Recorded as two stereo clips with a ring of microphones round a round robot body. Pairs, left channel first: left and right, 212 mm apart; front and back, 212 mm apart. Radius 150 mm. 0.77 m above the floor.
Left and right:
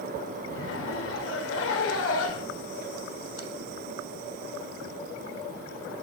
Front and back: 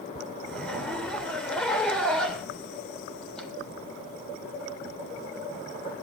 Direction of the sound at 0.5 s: 85° left.